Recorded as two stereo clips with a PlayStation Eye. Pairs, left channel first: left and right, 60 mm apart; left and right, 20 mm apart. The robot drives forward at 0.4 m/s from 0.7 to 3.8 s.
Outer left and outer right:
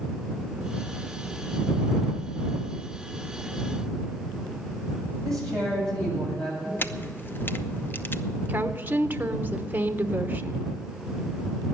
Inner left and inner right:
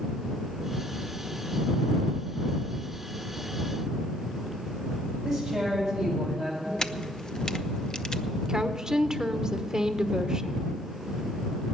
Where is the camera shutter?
35° left (ahead or behind), 0.6 m.